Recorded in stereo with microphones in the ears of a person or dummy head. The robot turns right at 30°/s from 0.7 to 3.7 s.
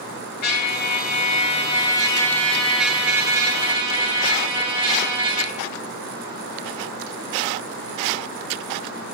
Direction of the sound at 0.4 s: 115° left.